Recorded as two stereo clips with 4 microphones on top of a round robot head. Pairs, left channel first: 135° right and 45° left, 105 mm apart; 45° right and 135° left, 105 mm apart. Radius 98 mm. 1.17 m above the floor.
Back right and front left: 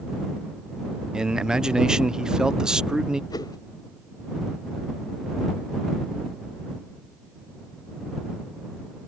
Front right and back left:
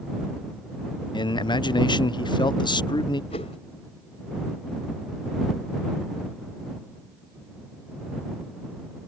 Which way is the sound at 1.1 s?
35° right.